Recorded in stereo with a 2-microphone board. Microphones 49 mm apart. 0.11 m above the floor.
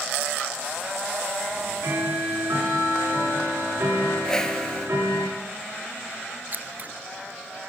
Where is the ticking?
75° right (ahead or behind), 9 m.